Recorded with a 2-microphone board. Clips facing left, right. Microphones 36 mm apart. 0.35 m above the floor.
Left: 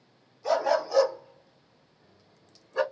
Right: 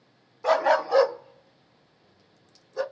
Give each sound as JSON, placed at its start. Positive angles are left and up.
{"t": 0.4, "sound": "a dog barking", "side_deg": -60, "distance_m": 0.7}